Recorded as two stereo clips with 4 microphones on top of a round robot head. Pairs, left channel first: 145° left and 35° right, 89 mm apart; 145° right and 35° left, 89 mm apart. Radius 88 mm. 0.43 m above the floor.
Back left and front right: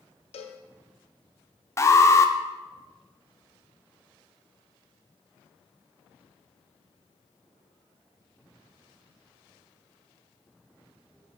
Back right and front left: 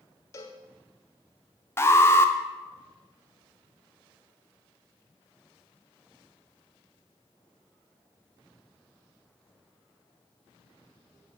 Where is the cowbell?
155° left, 0.5 m.